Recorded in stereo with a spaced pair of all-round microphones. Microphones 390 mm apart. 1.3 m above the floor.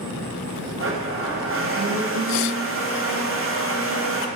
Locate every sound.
0.8 s a blender: 35° right (ahead or behind), 0.5 m